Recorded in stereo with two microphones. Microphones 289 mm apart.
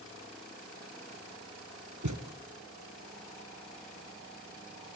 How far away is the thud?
About 3 m.